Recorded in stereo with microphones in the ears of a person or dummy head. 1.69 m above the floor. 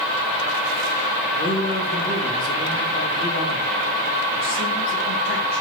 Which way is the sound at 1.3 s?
55° left (ahead or behind).